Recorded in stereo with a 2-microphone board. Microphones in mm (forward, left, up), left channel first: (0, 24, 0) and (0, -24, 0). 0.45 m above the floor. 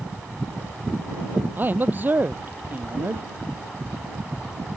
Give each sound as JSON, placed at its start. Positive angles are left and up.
{"t": 1.6, "sound": "a man speaking", "side_deg": -35}